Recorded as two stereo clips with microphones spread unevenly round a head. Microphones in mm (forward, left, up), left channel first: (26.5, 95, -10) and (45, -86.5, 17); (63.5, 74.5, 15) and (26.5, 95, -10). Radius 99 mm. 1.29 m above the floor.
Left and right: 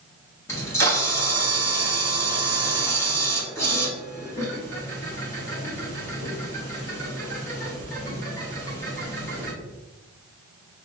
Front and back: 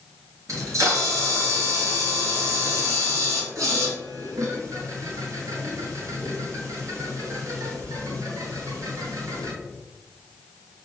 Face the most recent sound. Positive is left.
turn(degrees=175)